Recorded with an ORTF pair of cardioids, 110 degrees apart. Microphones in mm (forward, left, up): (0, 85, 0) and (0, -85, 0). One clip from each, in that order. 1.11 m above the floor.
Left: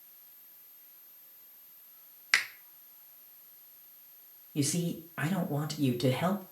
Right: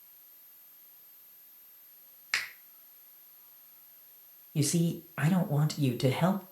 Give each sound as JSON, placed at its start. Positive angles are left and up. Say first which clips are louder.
{"t": 2.3, "sound": "a finger snap", "louder": "left 5 dB", "azimuth_deg": 30, "distance_m": 0.6}
{"t": 4.5, "sound": "a man speaking", "louder": "right 1 dB", "azimuth_deg": -15, "distance_m": 0.7}